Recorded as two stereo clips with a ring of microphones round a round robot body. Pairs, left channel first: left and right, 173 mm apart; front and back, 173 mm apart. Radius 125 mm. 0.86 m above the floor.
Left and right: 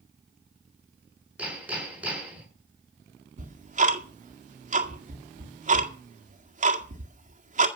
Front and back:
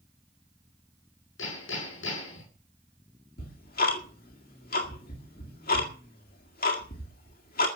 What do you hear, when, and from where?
1.4 s hammering: 10° right, 6.5 m
3.4 s ticking: 45° right, 1.9 m